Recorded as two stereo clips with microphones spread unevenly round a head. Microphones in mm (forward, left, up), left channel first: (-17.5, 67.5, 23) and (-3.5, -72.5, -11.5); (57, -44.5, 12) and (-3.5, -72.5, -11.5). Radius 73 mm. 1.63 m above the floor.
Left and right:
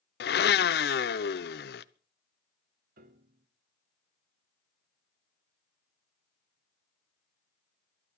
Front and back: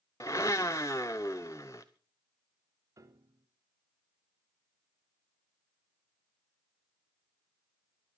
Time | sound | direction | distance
0.2 | a blender | 85° left | 0.7 m
3.0 | a piano | 115° right | 1.7 m